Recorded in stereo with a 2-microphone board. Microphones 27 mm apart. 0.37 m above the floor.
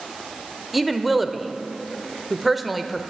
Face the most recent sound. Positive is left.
turn(degrees=0)  # may be behind; listen again after turning